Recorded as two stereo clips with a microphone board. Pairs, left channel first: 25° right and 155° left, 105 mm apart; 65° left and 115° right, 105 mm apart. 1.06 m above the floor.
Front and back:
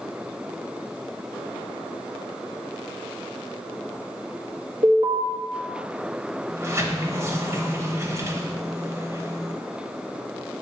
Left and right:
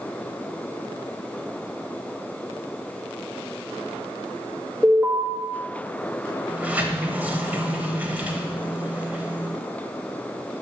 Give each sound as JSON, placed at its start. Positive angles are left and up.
{"t": 4.8, "sound": "an alarm", "azimuth_deg": 165, "distance_m": 1.3}
{"t": 6.5, "sound": "a sliding door", "azimuth_deg": -175, "distance_m": 0.9}